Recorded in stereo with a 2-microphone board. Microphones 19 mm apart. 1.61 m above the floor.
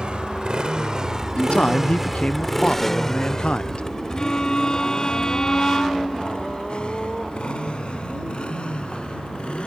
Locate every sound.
0.0 s a motorcycle: 55° right (ahead or behind); by 9.7 s 65° left (ahead or behind)
1.4 s a man speaking: 75° left (ahead or behind)
4.2 s a violin: 40° left (ahead or behind)